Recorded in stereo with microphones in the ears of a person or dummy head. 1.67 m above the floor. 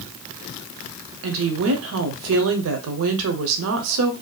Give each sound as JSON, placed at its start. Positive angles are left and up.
{"t": 1.2, "sound": "a woman speaking", "side_deg": -70, "distance_m": 0.6}